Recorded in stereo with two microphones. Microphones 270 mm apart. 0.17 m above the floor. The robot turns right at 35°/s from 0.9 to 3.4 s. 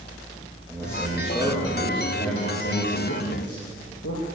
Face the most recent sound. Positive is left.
turn(degrees=70)